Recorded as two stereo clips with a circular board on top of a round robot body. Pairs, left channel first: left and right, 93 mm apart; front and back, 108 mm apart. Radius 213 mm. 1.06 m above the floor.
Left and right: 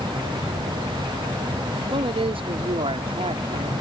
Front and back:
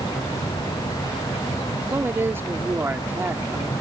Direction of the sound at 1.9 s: 110° right.